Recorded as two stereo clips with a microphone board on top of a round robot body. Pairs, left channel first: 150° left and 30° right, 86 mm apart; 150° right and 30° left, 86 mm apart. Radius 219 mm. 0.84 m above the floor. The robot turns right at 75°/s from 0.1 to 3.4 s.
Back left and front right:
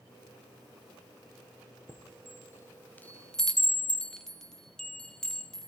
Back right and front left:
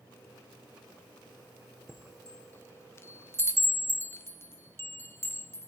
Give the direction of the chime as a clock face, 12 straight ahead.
8 o'clock.